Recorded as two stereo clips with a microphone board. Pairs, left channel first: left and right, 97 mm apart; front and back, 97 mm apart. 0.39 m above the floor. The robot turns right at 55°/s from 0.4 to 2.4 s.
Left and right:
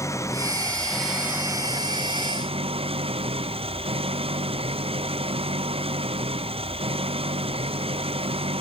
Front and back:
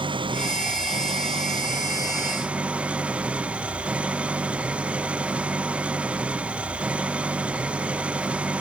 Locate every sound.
0.0 s an engine running: 150° left; by 8.6 s 100° right